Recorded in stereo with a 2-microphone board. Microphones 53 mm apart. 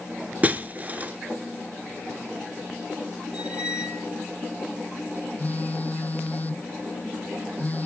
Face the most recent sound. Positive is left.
turn(degrees=30)  # may be behind; listen again after turning